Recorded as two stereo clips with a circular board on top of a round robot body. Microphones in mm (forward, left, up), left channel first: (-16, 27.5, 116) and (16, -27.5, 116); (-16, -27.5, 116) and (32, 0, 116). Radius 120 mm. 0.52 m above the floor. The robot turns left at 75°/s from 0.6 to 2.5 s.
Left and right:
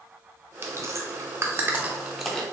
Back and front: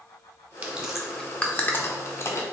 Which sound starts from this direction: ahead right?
Chewing, at 0.6 s.